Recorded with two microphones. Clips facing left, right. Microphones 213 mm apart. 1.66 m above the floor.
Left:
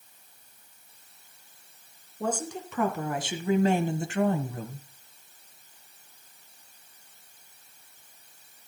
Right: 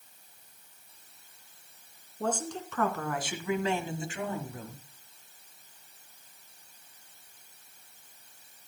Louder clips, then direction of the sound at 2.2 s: Left 1 dB; 5° left (ahead or behind).